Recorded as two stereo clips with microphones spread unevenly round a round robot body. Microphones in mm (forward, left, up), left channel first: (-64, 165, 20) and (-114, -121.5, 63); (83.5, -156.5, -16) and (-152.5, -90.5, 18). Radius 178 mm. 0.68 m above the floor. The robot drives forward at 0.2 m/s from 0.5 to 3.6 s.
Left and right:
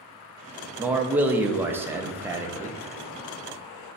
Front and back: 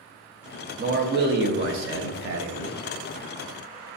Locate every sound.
0.8 s a man speaking: 160° left, 0.5 m; by 2.8 s 175° left, 0.8 m